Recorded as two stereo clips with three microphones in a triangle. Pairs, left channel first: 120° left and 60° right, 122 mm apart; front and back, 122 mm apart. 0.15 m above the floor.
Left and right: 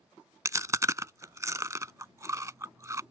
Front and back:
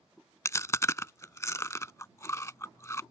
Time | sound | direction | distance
0.5 | chewing | 35° right | ?